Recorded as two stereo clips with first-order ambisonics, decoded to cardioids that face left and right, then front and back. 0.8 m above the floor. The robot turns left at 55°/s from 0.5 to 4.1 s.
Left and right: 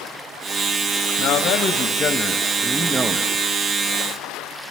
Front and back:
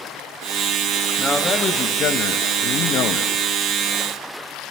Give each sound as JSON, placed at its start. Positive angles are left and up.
{"t": 1.2, "sound": "a man speaking", "azimuth_deg": 75, "distance_m": 0.7}